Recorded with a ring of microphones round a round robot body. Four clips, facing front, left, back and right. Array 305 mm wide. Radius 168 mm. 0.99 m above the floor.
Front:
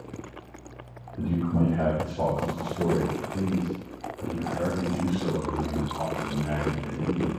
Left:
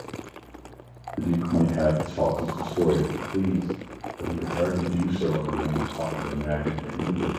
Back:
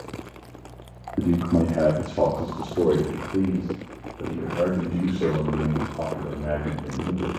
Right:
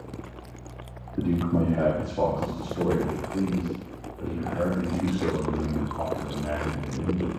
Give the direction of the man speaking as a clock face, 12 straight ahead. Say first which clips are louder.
Left 1 dB, back 5 dB; 7 o'clock.